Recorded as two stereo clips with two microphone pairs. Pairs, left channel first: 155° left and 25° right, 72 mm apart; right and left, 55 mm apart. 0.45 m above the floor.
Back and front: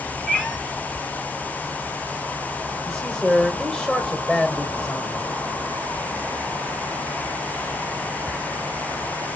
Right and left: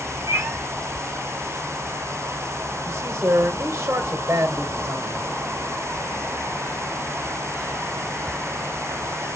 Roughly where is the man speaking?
Ahead left.